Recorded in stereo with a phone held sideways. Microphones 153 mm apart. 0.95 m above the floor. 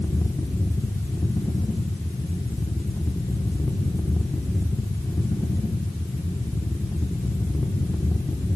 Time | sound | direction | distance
0.0 | a fan | 15° left (ahead or behind) | 1.1 m